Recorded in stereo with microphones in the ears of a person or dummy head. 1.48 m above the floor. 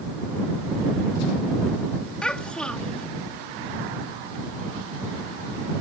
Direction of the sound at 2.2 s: Centre (ahead or behind).